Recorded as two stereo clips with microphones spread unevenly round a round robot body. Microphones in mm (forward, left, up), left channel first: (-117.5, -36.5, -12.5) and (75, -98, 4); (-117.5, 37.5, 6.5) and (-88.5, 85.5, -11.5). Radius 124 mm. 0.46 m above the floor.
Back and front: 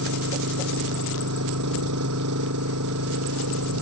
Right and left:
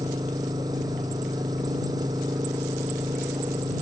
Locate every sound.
0.0 s an engine running: 10° left